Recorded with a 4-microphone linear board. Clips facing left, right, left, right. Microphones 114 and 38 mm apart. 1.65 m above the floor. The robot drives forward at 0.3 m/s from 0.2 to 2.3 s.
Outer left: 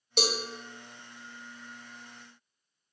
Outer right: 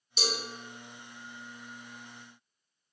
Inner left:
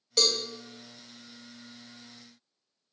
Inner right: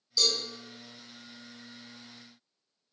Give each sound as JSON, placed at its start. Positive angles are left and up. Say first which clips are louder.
{"t": 0.2, "sound": "a cowbell", "louder": "outer left 5 dB, inner left 2 dB", "side_deg": 65, "distance_m": 0.6}